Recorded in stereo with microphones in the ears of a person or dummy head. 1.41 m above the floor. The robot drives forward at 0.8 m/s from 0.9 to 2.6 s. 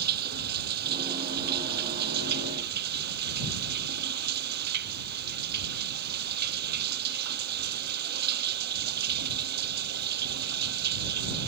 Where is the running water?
55° right (ahead or behind); by 11.5 s 60° right (ahead or behind).